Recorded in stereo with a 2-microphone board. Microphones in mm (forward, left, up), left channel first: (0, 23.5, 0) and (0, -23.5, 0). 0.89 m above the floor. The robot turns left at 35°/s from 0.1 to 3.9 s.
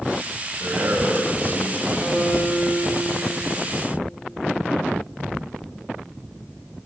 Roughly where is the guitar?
Behind.